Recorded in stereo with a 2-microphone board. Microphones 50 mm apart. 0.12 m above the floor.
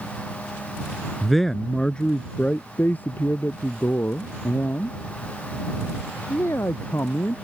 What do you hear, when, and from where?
1.2 s a man speaking: centre (ahead or behind); by 7.3 s 60° left (ahead or behind)